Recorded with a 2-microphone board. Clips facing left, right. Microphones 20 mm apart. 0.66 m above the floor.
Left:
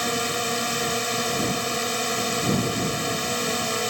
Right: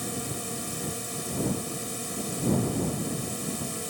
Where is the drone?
50° left (ahead or behind).